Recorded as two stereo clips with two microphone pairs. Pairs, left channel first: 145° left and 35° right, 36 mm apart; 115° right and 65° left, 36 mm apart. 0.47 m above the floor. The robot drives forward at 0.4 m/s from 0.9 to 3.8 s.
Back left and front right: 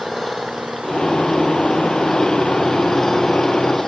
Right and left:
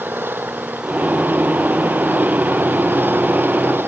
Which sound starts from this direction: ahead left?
An engine running, at 0.0 s.